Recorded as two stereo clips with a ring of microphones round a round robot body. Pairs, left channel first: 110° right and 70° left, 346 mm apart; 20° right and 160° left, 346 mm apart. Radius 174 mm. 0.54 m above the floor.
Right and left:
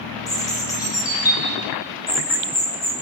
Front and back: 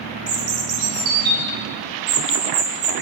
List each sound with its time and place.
0.3 s a bird: 170° left, 3 m